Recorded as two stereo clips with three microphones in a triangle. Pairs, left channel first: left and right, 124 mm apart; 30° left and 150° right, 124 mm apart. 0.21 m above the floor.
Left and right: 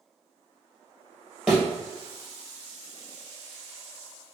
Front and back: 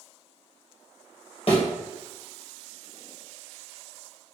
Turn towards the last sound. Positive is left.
turn(degrees=-5)